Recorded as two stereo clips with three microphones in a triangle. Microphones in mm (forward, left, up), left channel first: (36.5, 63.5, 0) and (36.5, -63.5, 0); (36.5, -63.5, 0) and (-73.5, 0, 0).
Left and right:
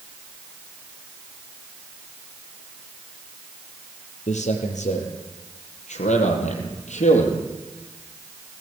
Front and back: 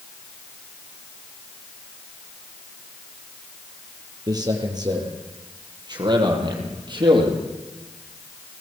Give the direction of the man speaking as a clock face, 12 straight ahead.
9 o'clock.